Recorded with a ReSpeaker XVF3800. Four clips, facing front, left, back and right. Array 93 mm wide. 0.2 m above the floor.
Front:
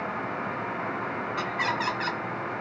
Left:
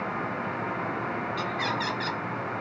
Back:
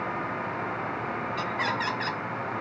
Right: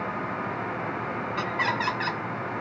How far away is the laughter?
About 1.7 m.